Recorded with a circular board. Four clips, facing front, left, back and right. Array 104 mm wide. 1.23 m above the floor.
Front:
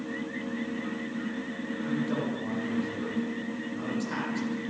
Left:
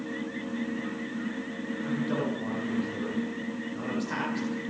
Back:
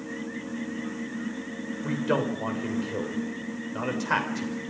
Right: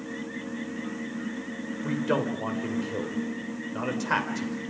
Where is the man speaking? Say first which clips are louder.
Right 3 dB, back 4 dB; 140° right, 5.5 m.